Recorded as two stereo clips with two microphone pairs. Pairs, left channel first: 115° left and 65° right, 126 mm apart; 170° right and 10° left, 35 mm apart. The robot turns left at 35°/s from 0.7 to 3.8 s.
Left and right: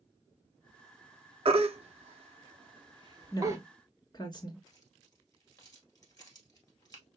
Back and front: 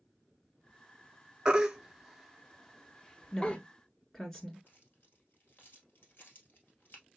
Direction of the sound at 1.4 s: 55° right.